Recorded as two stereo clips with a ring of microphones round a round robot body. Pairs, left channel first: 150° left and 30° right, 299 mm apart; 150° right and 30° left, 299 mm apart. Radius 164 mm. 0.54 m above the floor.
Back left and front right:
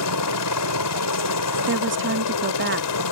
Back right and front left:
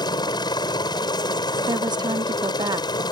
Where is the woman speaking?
40° right.